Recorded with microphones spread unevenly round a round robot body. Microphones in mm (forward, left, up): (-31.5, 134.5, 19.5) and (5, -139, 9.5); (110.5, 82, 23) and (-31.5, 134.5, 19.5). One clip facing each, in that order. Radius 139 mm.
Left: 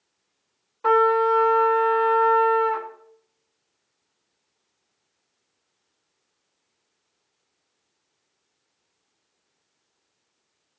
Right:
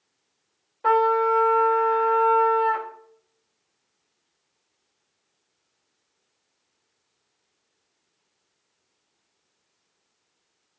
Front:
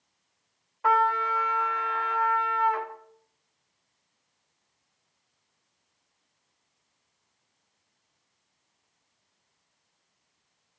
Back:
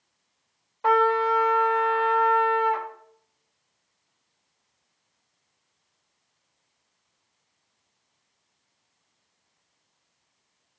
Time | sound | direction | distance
0.8 | a trumpet | 150° left | 1.1 m